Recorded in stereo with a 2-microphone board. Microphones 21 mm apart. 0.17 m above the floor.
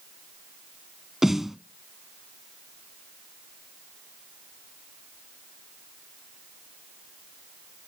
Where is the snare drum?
15° right (ahead or behind), 0.5 m.